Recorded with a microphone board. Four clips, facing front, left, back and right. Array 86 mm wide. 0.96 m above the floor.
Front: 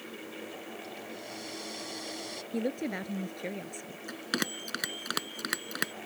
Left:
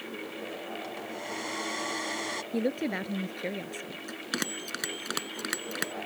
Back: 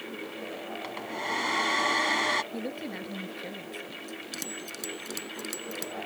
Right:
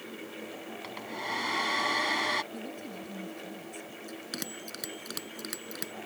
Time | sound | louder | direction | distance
0.8 | a hair dryer | even, back 8 dB | 155° right | ?
2.5 | a woman speaking | left 11 dB, front 3 dB | 75° left | ?
4.1 | a bell | left 7 dB, front 4 dB | 40° left | ?